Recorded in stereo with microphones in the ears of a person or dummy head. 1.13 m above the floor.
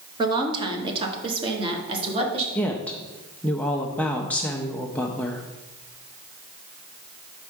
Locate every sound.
0.2 s a woman speaking: 25° right (ahead or behind), 0.9 m; by 2.5 s 35° right (ahead or behind), 2 m
2.5 s a woman speaking: 5° left (ahead or behind), 0.6 m